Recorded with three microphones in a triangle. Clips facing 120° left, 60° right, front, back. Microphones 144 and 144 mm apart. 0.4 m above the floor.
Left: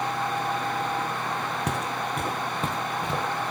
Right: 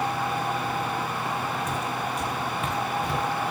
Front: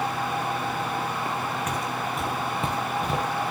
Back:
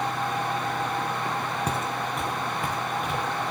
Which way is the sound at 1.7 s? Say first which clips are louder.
Even, even; 125° left.